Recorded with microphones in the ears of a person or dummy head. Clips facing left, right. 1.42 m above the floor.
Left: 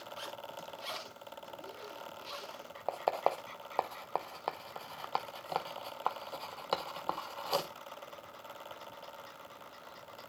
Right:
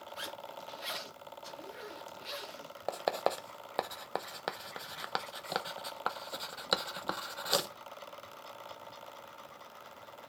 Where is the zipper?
20° right (ahead or behind), 1.5 m.